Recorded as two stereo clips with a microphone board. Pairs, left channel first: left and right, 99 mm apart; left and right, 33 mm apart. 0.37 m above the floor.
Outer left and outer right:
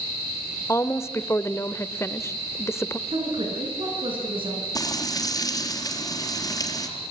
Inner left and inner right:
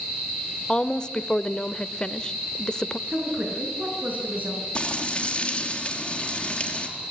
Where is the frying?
35° left (ahead or behind), 3.5 m.